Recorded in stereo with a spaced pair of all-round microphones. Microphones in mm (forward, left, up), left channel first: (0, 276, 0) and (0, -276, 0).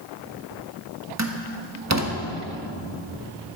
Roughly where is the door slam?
Right.